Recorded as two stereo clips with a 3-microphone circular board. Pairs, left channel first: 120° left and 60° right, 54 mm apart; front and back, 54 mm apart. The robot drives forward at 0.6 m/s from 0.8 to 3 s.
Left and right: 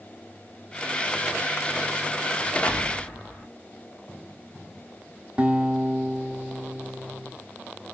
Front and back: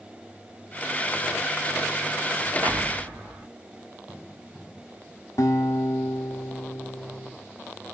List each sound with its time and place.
2.6 s an explosion: 175° right, 0.9 m
5.4 s a guitar: 10° left, 0.6 m